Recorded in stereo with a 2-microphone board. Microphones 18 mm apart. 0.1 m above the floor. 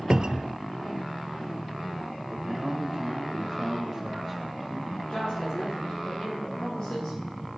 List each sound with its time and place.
0.1 s a cupboard door: 50° right (ahead or behind), 0.6 m
2.3 s a man speaking: 10° right (ahead or behind), 3.5 m
5.1 s a woman speaking: 60° left (ahead or behind), 9.5 m